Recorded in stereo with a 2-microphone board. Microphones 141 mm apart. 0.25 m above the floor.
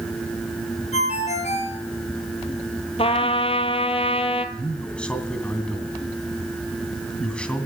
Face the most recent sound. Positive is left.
turn(degrees=5)  # may be behind; listen again after turning